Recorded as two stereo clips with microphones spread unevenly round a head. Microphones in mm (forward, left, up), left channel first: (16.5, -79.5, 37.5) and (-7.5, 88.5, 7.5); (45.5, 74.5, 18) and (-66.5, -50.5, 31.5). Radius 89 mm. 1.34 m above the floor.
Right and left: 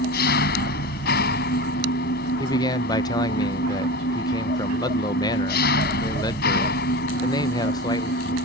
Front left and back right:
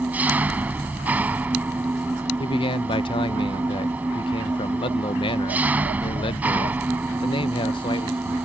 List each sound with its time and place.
0.0 s an engine running: 50° right
2.4 s a man speaking: 15° right